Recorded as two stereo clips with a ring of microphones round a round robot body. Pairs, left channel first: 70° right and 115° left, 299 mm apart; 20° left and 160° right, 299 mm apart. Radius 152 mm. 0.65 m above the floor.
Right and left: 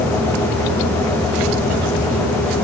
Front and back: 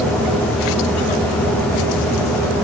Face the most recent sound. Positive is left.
No sound to turn to.